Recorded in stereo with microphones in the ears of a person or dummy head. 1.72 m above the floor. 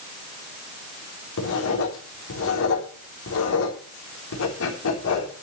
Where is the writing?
75° left (ahead or behind), 3.5 m.